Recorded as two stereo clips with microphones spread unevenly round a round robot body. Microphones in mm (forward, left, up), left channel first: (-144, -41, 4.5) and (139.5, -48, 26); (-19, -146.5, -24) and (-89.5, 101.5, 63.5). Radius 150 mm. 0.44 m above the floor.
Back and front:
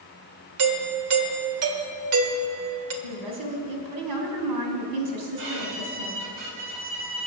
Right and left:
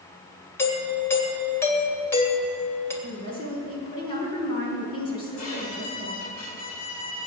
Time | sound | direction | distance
0.6 | a doorbell | 15° right | 1.9 m
3.0 | a woman speaking | 5° right | 3.5 m
5.4 | a violin | 25° right | 3 m